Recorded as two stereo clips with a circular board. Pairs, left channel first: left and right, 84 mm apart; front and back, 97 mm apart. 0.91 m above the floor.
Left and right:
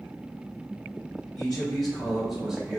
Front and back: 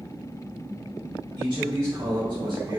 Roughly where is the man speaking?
Behind.